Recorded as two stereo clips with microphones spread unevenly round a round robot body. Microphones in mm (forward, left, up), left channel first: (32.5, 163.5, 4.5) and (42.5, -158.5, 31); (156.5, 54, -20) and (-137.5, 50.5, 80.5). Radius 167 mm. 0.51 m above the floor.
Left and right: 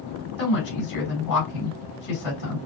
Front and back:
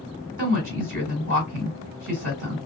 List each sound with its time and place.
0.4 s a woman speaking: 115° left, 3 m